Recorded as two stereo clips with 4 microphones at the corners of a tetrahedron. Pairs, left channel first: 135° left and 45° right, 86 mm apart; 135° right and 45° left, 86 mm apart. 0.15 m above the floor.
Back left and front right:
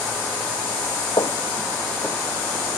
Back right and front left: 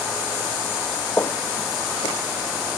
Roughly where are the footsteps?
Behind.